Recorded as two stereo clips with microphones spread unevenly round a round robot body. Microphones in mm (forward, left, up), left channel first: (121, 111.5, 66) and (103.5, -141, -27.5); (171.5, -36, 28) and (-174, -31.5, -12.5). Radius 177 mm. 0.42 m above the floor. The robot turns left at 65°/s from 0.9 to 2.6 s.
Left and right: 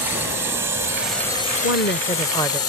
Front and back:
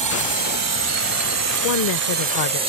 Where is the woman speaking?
45° left; by 2.6 s 20° right.